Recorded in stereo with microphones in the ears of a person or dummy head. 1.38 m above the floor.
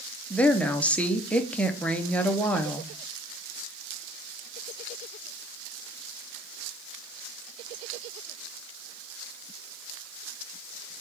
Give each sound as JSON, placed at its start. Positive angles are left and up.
{"t": 0.3, "sound": "a woman speaking", "side_deg": 5, "distance_m": 0.5}